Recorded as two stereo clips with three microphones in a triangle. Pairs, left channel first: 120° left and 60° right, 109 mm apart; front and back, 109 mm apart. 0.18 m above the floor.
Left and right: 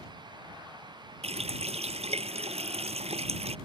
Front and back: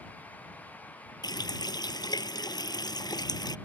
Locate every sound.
1.2 s a running tap: 50° right